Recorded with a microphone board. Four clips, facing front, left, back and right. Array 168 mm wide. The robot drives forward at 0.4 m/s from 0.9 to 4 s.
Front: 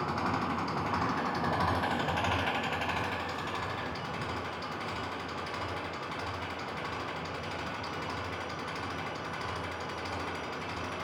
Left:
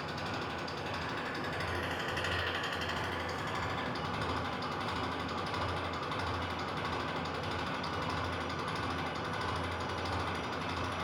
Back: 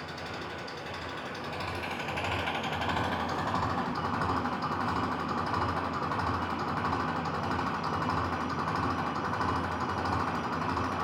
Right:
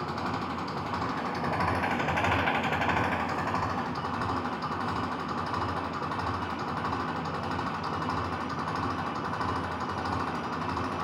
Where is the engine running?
40° right, 0.8 m; by 11.0 s 140° right, 0.8 m.